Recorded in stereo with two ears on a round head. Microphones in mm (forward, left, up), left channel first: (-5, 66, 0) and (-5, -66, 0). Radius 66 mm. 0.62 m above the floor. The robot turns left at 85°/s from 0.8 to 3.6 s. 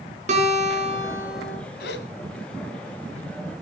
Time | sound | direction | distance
0.3 | a guitar | 130° right | 5 m
1.8 | a gasp | 75° left (ahead or behind) | 2 m